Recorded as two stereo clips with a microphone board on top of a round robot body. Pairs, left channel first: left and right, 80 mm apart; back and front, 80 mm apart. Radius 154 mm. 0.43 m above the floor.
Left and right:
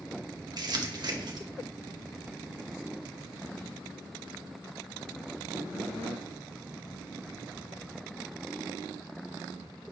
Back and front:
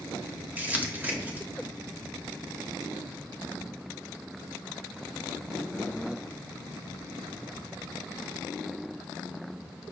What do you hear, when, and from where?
0.6 s crumpling: 65° right, 1.8 m